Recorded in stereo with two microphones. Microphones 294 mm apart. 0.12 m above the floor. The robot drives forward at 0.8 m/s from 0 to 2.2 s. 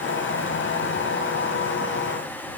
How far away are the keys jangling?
No keys jangling in this recording.